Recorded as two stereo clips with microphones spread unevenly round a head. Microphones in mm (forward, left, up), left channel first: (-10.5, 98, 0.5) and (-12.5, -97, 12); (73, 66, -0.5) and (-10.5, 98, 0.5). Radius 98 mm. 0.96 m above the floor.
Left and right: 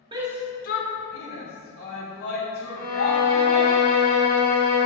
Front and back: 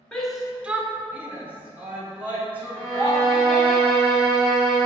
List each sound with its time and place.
0.1 s a shout: 80° right, 0.5 m; by 3.8 s 90° left, 4.5 m
2.8 s a violin: 65° left, 1.9 m